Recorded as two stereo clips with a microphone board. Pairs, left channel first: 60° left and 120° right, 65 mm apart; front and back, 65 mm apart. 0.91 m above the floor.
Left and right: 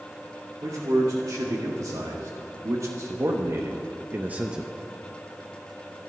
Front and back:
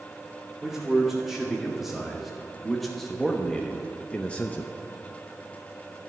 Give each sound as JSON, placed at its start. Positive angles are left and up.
{"t": 0.6, "sound": "a man speaking", "azimuth_deg": -95, "distance_m": 2.5}